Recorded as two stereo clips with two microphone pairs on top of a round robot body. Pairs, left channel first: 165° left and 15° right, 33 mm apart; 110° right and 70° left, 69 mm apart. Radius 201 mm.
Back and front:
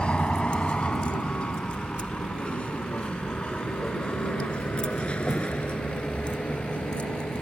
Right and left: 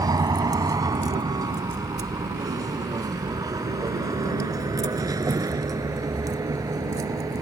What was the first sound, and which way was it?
A vehicle, 100° left.